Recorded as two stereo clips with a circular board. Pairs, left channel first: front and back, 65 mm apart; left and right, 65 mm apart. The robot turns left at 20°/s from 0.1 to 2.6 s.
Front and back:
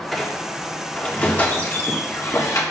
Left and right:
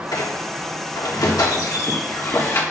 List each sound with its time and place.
0.1 s a squeak: 90° left, 1.3 m; by 2.6 s 40° left, 1.3 m